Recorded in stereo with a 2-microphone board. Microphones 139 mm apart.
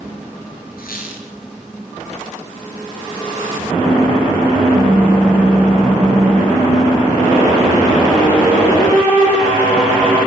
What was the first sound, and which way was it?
A squeak, 85° left.